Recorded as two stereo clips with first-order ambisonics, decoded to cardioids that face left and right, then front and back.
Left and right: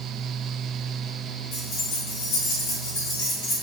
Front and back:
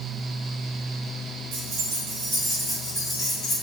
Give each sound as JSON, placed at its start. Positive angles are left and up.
{"t": 1.5, "sound": "keys jangling", "azimuth_deg": 150, "distance_m": 1.1}